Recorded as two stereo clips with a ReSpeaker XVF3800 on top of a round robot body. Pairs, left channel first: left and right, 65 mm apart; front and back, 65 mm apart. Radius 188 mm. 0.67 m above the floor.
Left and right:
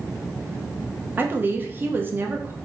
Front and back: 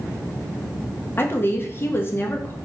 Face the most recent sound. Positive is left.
turn(degrees=-40)